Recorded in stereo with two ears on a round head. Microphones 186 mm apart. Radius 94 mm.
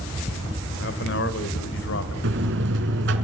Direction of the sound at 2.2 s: 65° right (ahead or behind).